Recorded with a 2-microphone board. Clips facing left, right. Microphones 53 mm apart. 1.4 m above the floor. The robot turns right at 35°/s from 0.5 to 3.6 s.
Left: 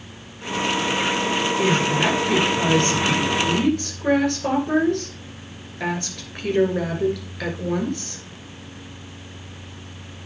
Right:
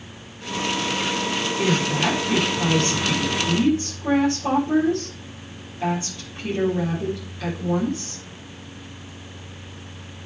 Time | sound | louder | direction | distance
1.6 | a woman speaking | left 1 dB | 20° left | 5.5 m